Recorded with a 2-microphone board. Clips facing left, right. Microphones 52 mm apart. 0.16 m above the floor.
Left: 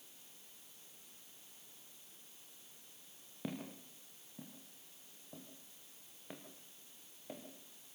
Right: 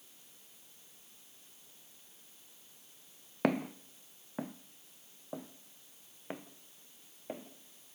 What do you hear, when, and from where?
3.4 s footsteps: 70° right (ahead or behind), 0.9 m; by 8.0 s 25° right (ahead or behind), 2.5 m